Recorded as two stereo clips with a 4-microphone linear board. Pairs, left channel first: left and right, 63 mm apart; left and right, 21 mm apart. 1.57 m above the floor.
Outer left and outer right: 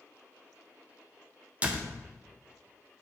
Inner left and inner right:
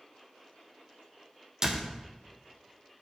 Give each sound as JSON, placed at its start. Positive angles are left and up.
{"t": 1.6, "sound": "a door slam", "side_deg": -25, "distance_m": 0.8}